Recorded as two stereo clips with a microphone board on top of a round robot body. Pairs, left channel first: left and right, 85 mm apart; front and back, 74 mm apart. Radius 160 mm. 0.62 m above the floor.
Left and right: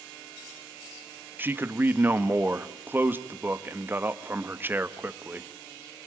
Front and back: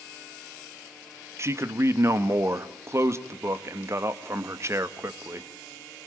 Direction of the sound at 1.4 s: 145° right.